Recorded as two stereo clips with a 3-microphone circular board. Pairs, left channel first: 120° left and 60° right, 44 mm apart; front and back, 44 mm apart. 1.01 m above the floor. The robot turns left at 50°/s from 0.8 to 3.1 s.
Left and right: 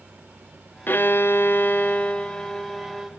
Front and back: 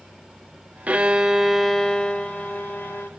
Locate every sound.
0.9 s a violin: 135° left, 1.0 m; by 3.1 s 25° left, 1.0 m